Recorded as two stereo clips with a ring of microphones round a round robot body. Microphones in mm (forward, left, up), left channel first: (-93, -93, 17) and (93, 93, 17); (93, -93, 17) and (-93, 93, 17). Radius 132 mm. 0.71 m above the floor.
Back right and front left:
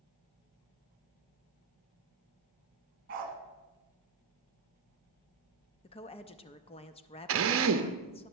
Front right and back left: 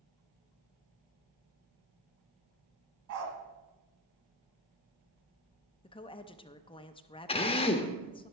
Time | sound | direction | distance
3.1 | a dog barking | 100° left | 1.9 m
5.8 | a woman speaking | 95° right | 0.6 m
7.3 | a drill | 20° left | 0.7 m